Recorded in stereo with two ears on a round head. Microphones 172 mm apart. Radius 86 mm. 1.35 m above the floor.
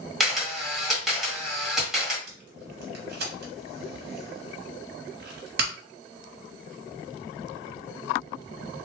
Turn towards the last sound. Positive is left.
turn(degrees=-60)  # may be behind; listen again after turning